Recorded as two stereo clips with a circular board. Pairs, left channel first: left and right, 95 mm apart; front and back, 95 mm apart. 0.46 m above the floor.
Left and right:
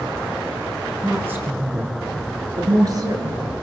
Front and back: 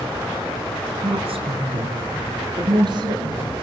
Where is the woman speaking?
165° right, 6.5 m; by 3.4 s 135° right, 7.5 m.